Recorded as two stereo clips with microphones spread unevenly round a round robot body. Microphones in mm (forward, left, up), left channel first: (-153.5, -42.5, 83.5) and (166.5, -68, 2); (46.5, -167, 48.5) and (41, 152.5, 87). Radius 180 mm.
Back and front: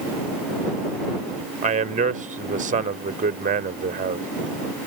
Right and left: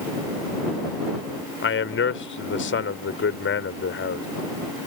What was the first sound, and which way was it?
A man speaking, 55° right.